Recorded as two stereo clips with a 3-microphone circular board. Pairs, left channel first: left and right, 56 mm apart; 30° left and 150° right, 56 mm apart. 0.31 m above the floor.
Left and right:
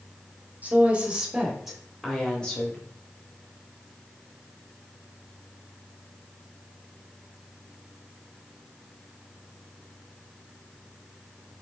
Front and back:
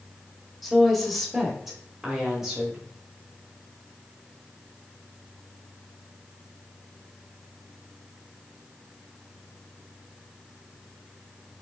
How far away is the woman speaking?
About 1.1 m.